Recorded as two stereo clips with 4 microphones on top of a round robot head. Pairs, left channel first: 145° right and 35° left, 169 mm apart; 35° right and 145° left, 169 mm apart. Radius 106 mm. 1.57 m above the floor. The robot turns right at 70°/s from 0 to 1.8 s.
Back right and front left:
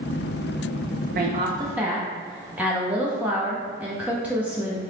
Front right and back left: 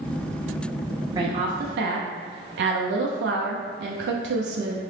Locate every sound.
1.1 s a woman speaking: 75° left, 0.5 m; by 4.8 s 120° left, 0.5 m